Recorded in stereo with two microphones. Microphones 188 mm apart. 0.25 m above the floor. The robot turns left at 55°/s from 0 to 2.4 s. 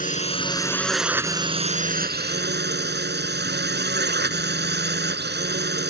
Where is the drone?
55° left; by 5.9 s 80° right.